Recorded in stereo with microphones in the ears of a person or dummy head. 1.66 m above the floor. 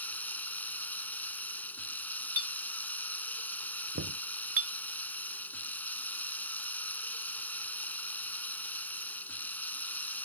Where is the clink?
45° right (ahead or behind).